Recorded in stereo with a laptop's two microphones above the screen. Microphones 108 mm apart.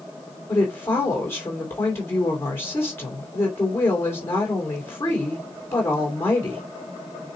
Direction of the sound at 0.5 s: 20° left (ahead or behind).